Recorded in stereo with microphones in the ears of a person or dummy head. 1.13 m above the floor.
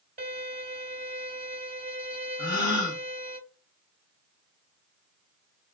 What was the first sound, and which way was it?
A violin, 40° right (ahead or behind).